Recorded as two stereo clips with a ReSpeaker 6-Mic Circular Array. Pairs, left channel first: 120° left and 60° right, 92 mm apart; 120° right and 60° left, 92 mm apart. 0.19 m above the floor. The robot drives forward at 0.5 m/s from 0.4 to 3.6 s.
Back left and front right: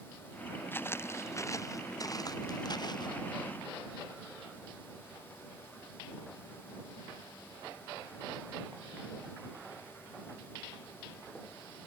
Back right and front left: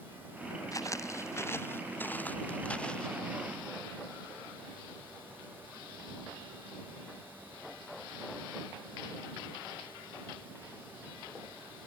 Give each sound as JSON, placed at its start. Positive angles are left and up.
{"t": 0.7, "sound": "footsteps", "azimuth_deg": -175}